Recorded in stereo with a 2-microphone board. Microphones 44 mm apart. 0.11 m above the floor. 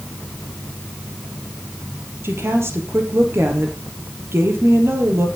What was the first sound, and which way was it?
A woman speaking, 65° right (ahead or behind).